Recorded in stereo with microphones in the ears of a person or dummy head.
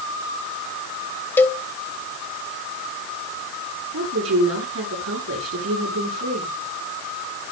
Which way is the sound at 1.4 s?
10° left (ahead or behind).